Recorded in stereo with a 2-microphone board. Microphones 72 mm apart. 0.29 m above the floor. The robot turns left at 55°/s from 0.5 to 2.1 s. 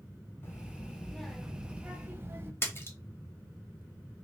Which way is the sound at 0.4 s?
50° left.